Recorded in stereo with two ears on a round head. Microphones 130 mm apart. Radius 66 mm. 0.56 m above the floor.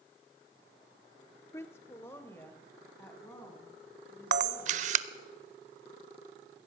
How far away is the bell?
No bell in this recording.